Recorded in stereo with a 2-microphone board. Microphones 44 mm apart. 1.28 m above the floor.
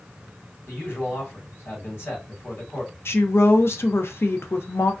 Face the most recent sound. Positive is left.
turn(degrees=70)  # may be behind; listen again after turning